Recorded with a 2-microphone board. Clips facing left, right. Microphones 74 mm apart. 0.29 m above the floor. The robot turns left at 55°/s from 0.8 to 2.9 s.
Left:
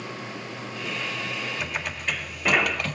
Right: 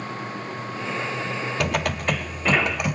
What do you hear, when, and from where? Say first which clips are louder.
1.6 s typing on a keyboard: right 7 dB; 95° right, 1.4 m; by 3.0 s 165° right, 1.4 m